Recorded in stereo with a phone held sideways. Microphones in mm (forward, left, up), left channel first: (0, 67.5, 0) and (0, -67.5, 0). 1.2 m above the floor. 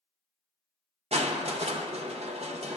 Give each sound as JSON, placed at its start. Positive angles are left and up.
{"t": 1.1, "sound": "crushing", "side_deg": -55, "distance_m": 0.6}